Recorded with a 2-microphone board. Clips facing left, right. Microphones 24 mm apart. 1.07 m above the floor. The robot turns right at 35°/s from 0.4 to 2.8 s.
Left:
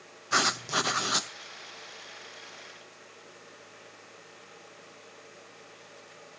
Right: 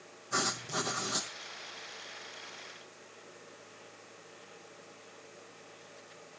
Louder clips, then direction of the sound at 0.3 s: Left 7 dB; 80° left.